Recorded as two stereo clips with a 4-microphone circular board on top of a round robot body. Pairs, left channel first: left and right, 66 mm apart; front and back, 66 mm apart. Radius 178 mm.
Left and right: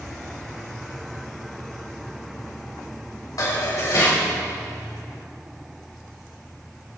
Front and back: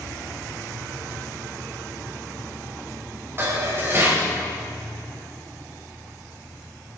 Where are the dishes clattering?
125° left, 3.5 m.